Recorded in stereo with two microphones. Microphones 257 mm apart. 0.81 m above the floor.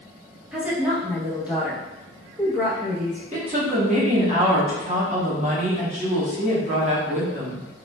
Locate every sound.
0.5 s a woman speaking: 5° right (ahead or behind), 0.7 m
3.3 s a woman speaking: 30° right (ahead or behind), 0.9 m